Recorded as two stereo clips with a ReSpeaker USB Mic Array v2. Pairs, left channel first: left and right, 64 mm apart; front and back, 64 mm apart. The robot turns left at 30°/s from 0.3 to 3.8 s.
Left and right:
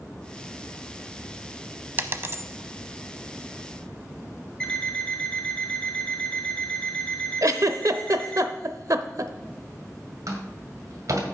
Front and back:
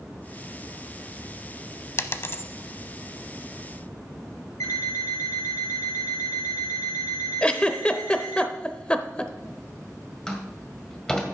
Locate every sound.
2.0 s a dropped coin: 40° right, 0.7 m; by 2.4 s 50° right, 0.7 m
4.6 s an alarm clock: 5° left, 5 m
7.4 s a giggle: 70° right, 0.6 m
10.3 s a door slam: 80° right, 1.8 m